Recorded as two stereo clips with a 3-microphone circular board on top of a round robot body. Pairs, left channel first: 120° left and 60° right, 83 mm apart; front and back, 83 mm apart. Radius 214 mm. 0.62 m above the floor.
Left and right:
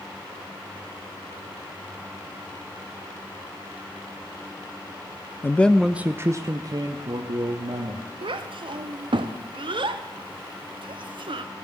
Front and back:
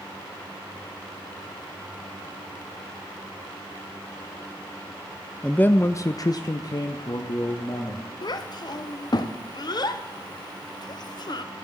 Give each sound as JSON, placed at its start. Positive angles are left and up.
{"t": 5.4, "sound": "a man speaking", "azimuth_deg": 75, "distance_m": 0.6}
{"t": 8.2, "sound": "a child speaking", "azimuth_deg": -40, "distance_m": 0.6}